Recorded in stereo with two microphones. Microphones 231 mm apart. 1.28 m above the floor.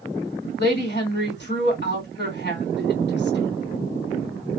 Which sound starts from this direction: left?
A woman speaking, at 0.6 s.